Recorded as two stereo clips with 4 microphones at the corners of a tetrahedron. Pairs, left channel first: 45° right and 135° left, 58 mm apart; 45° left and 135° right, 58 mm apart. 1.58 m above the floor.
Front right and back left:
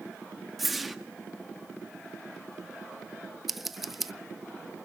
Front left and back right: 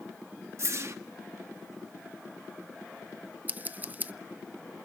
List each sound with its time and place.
0.6 s a whoosh: 140° right, 1.4 m
3.5 s scissors: 145° right, 0.6 m